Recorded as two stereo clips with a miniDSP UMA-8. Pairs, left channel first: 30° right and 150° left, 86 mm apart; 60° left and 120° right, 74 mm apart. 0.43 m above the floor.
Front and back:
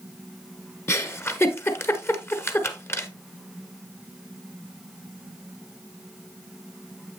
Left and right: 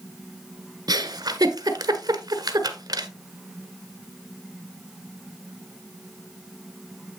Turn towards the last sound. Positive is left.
turn(degrees=-90)